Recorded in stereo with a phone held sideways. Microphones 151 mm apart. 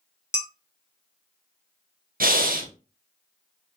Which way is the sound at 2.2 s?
75° right (ahead or behind).